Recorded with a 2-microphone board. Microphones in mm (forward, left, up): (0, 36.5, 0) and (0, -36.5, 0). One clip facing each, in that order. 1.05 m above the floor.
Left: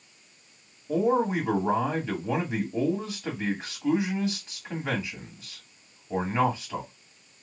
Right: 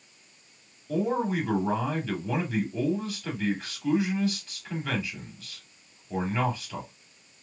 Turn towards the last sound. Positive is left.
turn(degrees=20)  # may be behind; listen again after turning